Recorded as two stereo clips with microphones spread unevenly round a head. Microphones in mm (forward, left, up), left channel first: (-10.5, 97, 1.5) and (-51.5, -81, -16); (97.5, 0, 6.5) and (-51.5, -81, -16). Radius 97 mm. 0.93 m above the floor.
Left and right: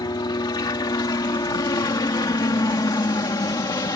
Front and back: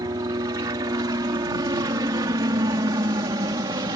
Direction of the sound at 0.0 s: 140° left.